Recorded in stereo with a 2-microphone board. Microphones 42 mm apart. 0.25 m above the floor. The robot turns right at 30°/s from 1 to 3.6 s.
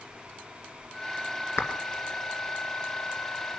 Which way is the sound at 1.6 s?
70° left (ahead or behind).